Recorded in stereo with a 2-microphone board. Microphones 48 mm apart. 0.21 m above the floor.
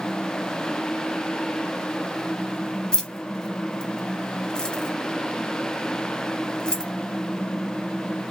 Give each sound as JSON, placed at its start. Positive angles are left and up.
{"t": 2.9, "sound": "keys jangling", "side_deg": 20, "distance_m": 0.7}